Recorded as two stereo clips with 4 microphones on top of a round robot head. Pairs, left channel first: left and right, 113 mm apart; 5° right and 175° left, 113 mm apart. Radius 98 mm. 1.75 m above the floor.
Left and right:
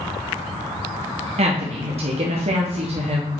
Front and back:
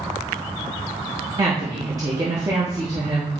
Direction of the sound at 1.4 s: 115° right.